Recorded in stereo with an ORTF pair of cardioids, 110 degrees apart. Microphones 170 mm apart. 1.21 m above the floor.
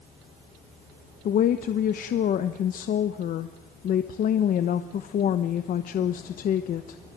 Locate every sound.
1.2 s a woman speaking: 55° left, 1.0 m